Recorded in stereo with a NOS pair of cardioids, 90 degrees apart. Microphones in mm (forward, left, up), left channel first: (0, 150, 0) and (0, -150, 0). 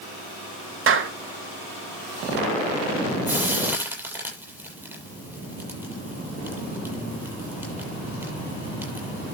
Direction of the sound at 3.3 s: 5° right.